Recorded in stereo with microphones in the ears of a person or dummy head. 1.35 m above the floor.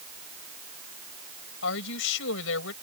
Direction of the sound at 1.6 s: 75° left (ahead or behind).